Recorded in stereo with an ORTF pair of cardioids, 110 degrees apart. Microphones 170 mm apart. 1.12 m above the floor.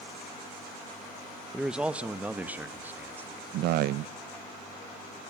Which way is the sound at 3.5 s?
70° right.